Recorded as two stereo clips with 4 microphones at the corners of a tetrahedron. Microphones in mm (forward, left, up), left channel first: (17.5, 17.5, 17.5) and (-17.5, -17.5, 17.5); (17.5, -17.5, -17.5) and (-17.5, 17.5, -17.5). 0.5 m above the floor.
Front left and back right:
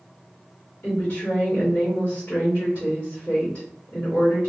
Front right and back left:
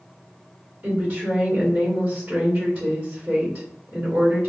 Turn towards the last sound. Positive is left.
turn(degrees=100)